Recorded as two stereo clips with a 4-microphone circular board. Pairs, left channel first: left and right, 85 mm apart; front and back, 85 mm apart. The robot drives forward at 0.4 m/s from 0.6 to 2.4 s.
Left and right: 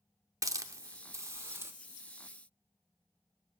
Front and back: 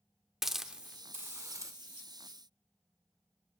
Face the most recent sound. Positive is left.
turn(degrees=-155)